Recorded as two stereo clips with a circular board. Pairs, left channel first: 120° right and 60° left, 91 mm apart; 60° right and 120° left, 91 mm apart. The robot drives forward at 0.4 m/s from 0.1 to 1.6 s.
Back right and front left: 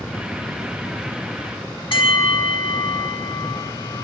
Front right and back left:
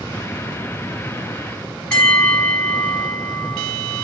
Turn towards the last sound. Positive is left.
turn(degrees=-140)